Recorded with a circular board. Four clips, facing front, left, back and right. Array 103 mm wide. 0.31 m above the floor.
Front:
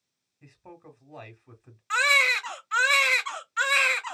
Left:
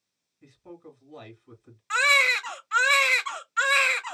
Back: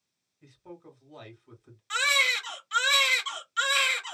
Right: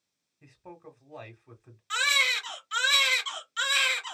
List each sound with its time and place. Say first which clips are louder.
0.4 s a man speaking: left 2 dB, back 1 dB; 35° right, 1.6 m
1.9 s a baby crying: left 6 dB, front 4 dB; 50° left, 0.6 m